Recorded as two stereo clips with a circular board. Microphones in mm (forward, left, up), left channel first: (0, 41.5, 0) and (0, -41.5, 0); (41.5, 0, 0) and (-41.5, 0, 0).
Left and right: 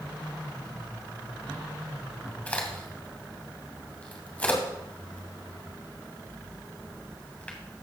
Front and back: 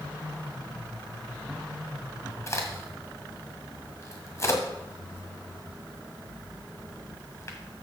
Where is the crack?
25° left, 1.7 m.